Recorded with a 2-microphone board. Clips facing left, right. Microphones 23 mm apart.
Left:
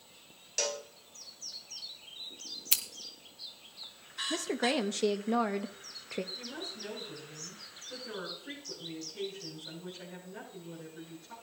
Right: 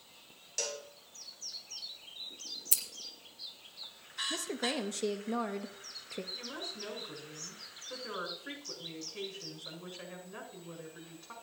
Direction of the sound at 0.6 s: 20° left (ahead or behind).